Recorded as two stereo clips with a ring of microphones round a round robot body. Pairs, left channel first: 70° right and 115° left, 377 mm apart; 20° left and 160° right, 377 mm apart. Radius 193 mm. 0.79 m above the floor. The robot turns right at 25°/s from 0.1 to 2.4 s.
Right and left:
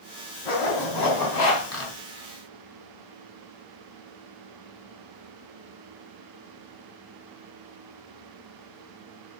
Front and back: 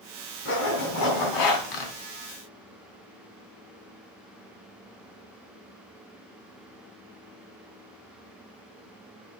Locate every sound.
0.5 s a zipper: 40° right, 3 m; by 1.9 s 5° right, 3 m